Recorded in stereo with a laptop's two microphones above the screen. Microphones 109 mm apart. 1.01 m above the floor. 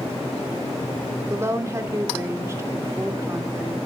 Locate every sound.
1.3 s a woman speaking: 25° right (ahead or behind), 2.5 m